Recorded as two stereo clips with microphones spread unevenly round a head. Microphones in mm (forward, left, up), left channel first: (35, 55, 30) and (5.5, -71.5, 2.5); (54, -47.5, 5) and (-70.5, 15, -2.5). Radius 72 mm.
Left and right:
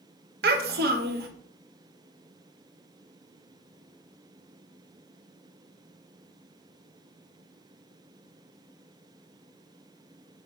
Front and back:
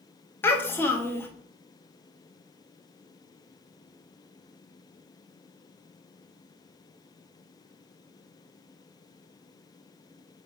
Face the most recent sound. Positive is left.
turn(degrees=-100)